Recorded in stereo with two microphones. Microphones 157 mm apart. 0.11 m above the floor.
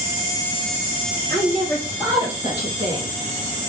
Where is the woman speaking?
10° left (ahead or behind), 2.5 m; by 3.1 s 50° right (ahead or behind), 2.5 m.